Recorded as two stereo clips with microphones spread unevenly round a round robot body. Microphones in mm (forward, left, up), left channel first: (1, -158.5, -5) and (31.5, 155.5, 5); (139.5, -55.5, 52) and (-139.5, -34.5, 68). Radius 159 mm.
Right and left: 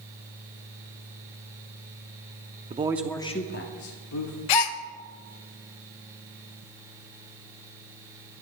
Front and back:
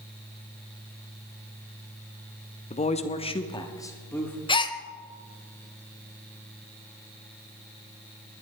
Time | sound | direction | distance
2.7 | a man speaking | 35° left | 0.8 m
4.5 | a gasp | 80° right | 0.8 m